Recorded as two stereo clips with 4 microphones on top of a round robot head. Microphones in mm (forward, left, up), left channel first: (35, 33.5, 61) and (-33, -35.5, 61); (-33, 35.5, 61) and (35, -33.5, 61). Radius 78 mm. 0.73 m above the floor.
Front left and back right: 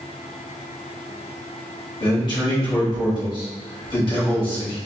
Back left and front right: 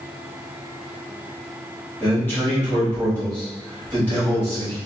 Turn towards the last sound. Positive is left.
turn(degrees=65)